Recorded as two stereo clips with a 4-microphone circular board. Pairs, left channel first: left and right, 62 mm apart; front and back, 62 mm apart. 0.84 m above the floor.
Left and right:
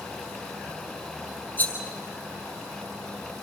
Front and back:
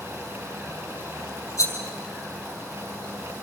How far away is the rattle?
About 5.5 m.